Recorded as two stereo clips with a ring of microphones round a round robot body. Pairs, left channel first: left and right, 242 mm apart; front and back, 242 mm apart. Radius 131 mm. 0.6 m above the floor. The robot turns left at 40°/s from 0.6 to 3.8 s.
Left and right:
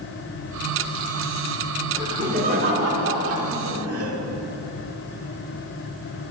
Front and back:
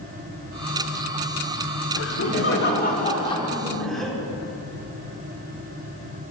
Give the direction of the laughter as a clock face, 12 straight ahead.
12 o'clock.